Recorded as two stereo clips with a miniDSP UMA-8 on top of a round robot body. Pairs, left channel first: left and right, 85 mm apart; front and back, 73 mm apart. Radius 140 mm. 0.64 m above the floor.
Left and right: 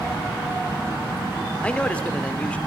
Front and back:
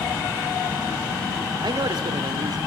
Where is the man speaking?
165° left, 2.5 m.